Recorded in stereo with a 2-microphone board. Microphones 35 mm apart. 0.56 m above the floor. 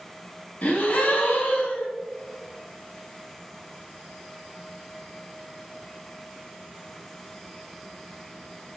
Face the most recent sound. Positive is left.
turn(degrees=50)  # may be behind; listen again after turning